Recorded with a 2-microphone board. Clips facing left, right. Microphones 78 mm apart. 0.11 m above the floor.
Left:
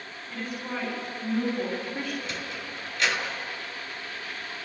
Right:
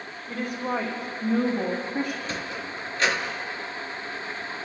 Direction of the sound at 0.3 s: 55° right (ahead or behind).